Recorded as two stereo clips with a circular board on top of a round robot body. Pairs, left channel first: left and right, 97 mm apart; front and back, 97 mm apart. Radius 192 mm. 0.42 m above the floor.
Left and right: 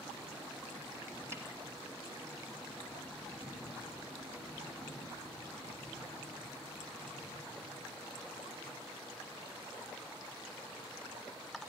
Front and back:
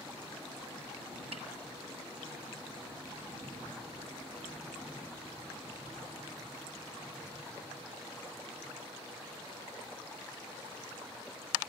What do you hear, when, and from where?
1.3 s a snare drum: 155° right, 2.0 m